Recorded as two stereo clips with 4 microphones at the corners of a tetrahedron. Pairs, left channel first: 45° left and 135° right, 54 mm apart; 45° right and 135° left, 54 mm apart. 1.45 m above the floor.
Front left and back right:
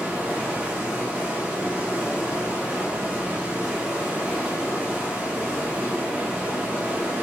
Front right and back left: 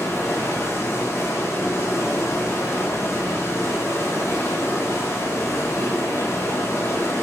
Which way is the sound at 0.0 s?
70° right.